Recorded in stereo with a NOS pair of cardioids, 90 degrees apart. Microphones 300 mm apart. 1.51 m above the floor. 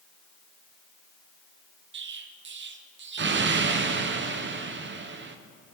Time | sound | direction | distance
1.9 | an explosion | 40° right | 0.8 m